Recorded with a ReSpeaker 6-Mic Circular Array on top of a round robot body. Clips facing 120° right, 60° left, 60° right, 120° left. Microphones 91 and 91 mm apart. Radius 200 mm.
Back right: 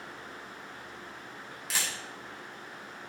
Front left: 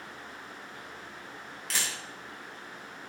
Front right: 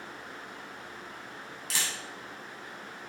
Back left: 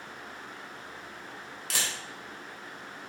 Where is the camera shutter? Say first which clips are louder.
Even, back left 1 dB; 155° left, 4 m.